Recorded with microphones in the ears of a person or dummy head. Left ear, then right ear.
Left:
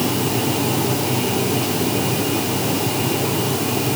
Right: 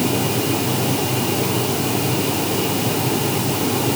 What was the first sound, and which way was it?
Only background noise.